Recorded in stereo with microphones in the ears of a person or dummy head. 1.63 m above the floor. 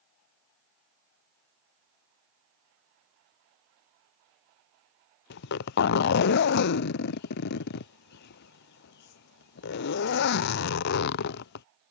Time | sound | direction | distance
5.3 | a zipper | 60° left (ahead or behind) | ?